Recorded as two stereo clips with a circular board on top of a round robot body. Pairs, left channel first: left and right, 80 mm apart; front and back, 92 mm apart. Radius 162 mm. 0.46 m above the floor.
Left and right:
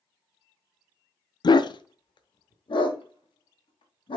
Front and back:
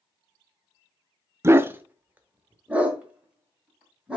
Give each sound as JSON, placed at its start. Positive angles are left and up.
{"t": 1.4, "sound": "a dog barking", "azimuth_deg": 120, "distance_m": 0.5}